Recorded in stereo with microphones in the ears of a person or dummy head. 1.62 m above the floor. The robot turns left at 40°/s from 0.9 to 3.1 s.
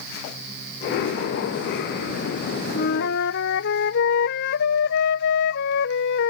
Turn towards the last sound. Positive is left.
turn(degrees=55)  # may be behind; listen again after turning